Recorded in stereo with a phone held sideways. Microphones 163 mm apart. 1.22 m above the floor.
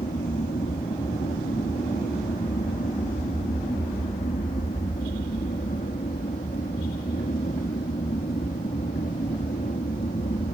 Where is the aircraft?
55° left (ahead or behind).